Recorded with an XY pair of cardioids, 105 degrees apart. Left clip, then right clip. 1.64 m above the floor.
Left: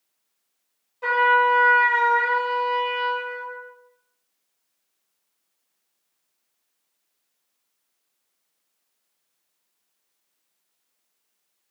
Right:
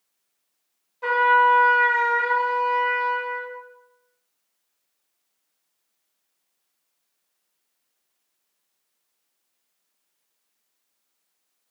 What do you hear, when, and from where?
1.0 s a trumpet: 5° left, 0.9 m